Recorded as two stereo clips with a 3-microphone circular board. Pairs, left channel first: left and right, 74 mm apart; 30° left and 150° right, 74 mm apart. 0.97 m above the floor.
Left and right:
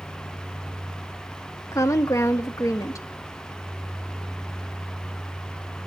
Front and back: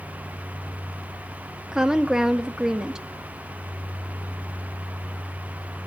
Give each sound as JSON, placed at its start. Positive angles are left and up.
{"t": 1.7, "sound": "a woman speaking", "azimuth_deg": 130, "distance_m": 1.5}